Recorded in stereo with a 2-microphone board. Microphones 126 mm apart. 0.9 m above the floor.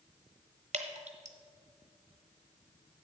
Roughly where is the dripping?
Right.